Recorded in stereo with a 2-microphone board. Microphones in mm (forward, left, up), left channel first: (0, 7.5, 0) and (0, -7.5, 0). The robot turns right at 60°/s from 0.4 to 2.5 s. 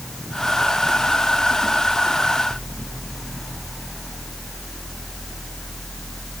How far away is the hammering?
No hammering in this recording.